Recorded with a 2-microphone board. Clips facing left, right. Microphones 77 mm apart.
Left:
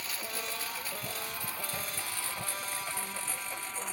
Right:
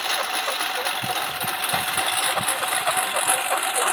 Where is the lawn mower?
75° right (ahead or behind); by 4.0 s 85° right.